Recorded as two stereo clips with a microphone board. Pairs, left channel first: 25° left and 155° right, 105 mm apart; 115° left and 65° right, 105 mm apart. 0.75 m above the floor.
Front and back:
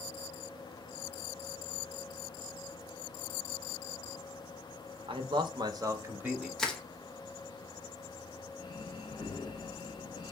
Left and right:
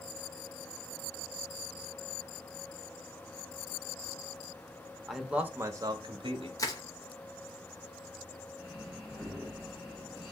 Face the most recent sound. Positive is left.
turn(degrees=15)